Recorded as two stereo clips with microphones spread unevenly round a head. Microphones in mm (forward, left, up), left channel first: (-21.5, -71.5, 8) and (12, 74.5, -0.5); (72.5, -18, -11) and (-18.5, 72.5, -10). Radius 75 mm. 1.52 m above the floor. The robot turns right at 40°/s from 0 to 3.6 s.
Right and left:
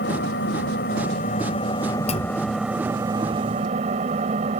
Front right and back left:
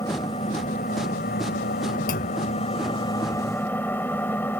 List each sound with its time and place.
0.0 s an engine running: 115° right; by 4.6 s 30° left
2.1 s a clunk: 55° right; by 2.4 s 40° right